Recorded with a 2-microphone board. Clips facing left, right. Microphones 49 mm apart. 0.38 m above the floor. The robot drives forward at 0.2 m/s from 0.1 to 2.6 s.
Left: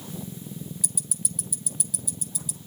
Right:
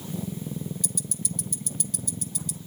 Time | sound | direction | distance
0.8 | ticking | 5° left (ahead or behind) | 0.8 m